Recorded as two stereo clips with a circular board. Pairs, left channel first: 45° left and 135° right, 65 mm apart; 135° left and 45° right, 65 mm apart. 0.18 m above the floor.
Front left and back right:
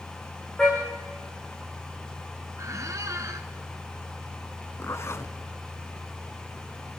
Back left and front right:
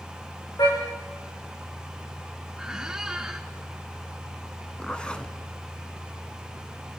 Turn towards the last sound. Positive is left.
turn(degrees=65)